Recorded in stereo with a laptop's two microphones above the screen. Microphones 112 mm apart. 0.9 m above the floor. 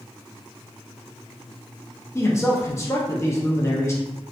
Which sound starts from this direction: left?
A man speaking, at 2.1 s.